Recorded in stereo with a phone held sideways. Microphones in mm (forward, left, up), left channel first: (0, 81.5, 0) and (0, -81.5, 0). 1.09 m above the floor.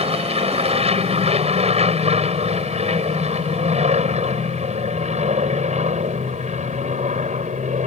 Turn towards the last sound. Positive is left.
turn(degrees=-45)  # may be behind; listen again after turning